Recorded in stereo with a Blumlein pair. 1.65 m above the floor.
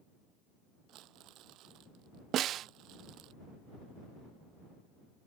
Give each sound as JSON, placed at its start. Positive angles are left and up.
{"t": 0.9, "sound": "crumpling", "azimuth_deg": -35}
{"t": 2.3, "sound": "a snare drum", "azimuth_deg": -30}